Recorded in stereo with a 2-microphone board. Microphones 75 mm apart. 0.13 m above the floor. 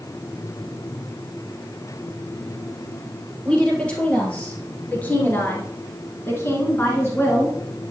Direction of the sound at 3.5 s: 15° left (ahead or behind).